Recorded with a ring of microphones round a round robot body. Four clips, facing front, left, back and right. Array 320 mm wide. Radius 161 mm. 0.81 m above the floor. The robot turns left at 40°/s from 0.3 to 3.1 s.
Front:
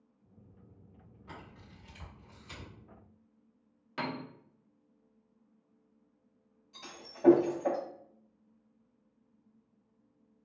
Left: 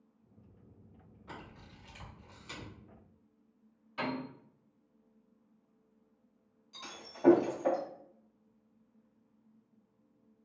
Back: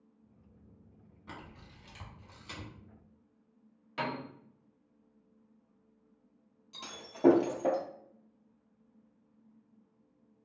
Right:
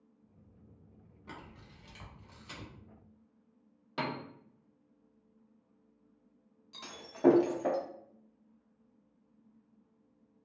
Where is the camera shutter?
130° right, 1.4 m; by 2.7 s 175° left, 1.4 m.